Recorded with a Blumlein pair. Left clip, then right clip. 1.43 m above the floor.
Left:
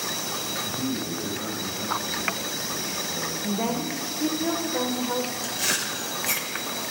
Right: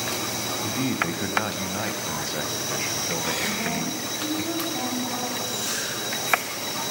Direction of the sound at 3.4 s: 55° left.